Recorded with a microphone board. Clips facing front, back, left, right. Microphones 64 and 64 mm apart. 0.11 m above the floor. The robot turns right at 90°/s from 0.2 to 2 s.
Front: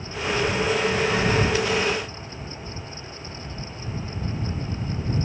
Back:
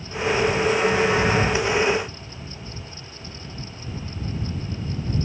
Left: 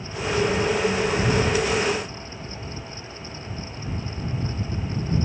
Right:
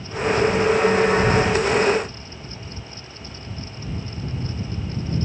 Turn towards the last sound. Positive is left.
No sound to turn to.